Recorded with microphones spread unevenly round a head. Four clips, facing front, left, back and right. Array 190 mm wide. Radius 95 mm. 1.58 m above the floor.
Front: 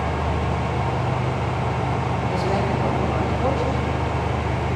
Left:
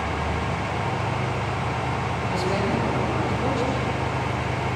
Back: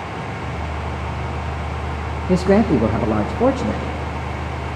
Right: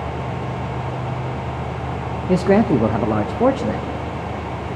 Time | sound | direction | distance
2.3 | a man speaking | 140° right | 0.9 m